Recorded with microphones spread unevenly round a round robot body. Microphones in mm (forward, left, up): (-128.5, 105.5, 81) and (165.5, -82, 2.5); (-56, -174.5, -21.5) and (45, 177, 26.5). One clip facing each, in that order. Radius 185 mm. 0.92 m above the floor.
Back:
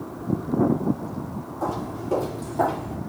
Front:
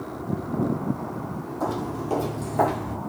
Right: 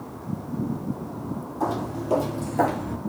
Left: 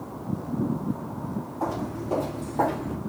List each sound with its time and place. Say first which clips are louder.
1.6 s footsteps: front 1 dB, right 3 dB; 65° right, 2.5 m